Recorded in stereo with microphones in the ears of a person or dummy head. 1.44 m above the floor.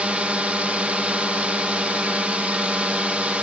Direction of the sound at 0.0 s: 5° right (ahead or behind).